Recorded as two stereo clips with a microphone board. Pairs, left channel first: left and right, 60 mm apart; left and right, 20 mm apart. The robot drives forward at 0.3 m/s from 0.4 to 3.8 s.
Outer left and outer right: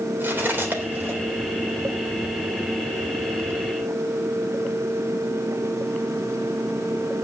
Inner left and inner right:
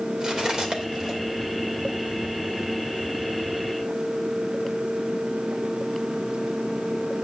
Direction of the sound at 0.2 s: 35° right (ahead or behind).